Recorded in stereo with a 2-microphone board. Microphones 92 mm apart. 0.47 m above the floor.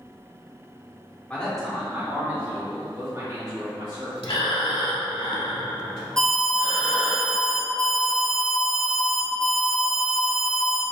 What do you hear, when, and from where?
1.3 s a man speaking: 15° left (ahead or behind), 0.9 m; by 4.1 s 60° right (ahead or behind), 3 m
4.2 s breathing: 75° left (ahead or behind), 0.6 m
6.2 s an alarm: 10° left (ahead or behind), 1.1 m